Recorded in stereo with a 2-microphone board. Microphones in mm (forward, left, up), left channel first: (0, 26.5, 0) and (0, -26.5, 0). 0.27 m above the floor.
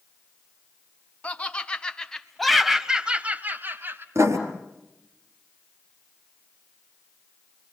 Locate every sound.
1.2 s laughter: 25° left (ahead or behind), 2.5 m; by 4.0 s 45° right (ahead or behind), 1.7 m
4.2 s writing: 60° right (ahead or behind), 4 m